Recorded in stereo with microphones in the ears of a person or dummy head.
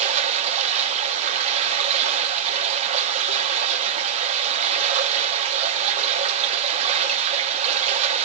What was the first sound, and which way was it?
Running water, 35° right (ahead or behind).